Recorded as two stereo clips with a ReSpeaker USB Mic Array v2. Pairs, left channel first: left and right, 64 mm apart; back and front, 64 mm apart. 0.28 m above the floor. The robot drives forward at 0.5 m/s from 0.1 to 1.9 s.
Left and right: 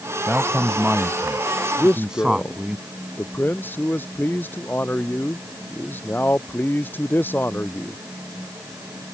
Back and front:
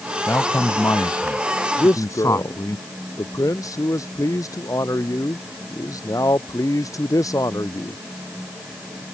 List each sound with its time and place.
0.3 s a man speaking: 155° right; by 2.8 s 165° right
1.8 s a man speaking: 150° left